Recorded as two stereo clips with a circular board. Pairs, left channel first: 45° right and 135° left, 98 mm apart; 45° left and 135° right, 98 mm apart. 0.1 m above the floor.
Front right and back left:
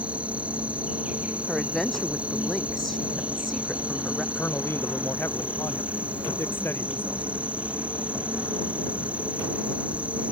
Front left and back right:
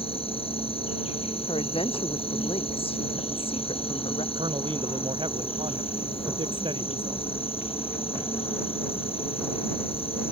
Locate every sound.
0.0 s an insect: 60° left
1.5 s a woman speaking: 40° left
4.3 s a man speaking: 110° right